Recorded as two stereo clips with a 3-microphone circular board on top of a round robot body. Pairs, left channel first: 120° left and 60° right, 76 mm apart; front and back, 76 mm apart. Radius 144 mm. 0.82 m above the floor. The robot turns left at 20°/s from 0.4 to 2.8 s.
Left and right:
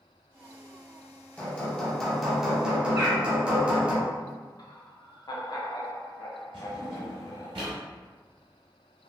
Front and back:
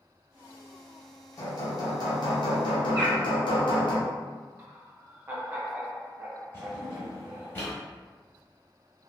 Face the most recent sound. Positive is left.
turn(degrees=-60)